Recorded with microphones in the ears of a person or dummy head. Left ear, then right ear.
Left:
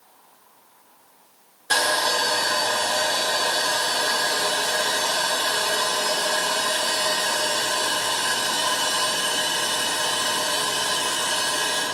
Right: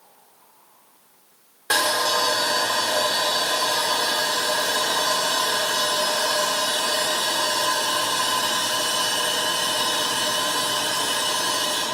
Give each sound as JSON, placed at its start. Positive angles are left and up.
{"t": 1.7, "sound": "sawing", "side_deg": -40, "distance_m": 2.5}